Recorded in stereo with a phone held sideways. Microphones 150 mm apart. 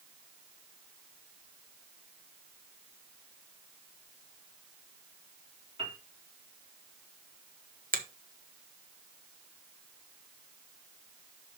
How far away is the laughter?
No laughter in this recording.